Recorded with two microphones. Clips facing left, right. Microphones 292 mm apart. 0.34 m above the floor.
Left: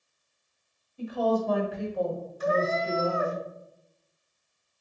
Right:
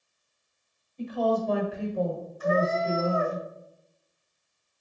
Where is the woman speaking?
10° left (ahead or behind), 1.5 m; by 3.4 s 25° right (ahead or behind), 1.3 m.